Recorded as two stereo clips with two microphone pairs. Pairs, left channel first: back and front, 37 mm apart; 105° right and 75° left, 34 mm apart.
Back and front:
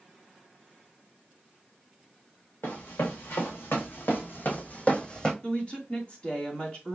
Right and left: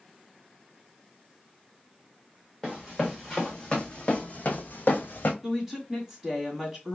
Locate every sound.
2.6 s running footsteps: 170° left, 1.4 m; by 5.3 s 110° right, 0.9 m
5.4 s a woman speaking: 150° left, 1.8 m